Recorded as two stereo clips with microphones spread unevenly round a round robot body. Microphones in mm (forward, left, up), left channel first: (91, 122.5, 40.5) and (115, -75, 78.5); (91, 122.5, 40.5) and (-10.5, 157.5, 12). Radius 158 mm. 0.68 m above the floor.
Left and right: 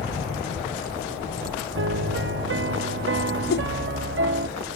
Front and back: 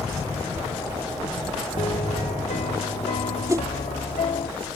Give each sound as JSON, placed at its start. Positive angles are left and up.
{"t": 1.8, "sound": "a piano", "azimuth_deg": -65}
{"t": 3.5, "sound": "a whoosh", "azimuth_deg": 110}